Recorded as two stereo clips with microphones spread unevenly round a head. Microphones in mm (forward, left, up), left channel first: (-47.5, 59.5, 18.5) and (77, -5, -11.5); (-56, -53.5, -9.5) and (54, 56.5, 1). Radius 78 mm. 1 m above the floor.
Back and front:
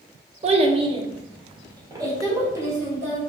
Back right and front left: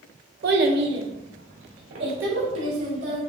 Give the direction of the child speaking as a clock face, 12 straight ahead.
11 o'clock.